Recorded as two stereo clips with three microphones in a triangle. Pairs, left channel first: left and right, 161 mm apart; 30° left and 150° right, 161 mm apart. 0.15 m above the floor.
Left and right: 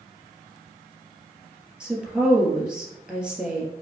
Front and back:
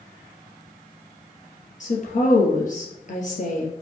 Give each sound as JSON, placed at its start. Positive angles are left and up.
{"t": 1.8, "sound": "a woman speaking", "azimuth_deg": -5, "distance_m": 3.0}